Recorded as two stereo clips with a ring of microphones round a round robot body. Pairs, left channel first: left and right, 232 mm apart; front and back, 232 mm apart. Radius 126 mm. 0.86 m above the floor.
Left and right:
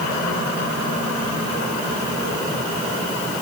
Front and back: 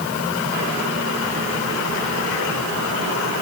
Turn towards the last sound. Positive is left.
No sound to turn to.